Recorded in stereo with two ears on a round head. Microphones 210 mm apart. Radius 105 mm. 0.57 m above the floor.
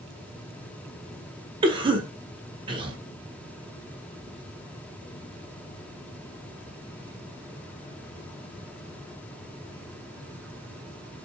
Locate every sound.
1.6 s a cough: 20° right (ahead or behind), 0.6 m